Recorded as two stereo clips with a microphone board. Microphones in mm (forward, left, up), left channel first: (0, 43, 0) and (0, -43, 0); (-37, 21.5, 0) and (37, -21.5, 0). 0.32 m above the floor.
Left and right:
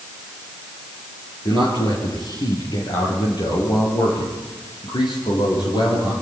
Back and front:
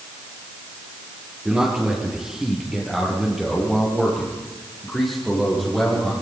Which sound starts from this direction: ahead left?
A man speaking, at 1.4 s.